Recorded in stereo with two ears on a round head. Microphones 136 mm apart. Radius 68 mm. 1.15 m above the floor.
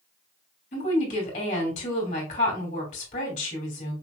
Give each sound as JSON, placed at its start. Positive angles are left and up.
{"t": 0.7, "sound": "a woman speaking", "side_deg": 55, "distance_m": 2.5}